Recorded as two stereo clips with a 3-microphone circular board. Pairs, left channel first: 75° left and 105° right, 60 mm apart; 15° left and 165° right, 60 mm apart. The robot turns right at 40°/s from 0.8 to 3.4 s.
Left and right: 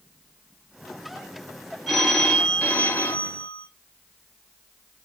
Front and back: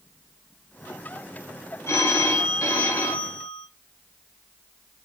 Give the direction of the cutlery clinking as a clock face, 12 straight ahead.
No cutlery clinking in this recording.